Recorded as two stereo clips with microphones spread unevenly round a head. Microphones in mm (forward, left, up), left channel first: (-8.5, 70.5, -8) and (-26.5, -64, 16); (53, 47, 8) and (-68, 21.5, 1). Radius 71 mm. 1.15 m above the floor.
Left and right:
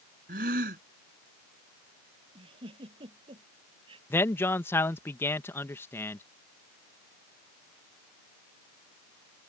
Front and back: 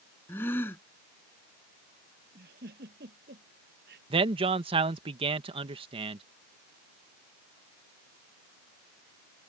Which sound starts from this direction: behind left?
A man speaking, at 4.1 s.